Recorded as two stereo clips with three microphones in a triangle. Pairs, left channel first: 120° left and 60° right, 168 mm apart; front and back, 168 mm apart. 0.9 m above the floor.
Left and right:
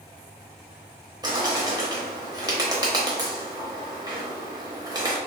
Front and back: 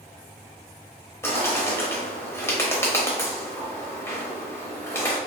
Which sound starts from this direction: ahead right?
A bird, at 1.2 s.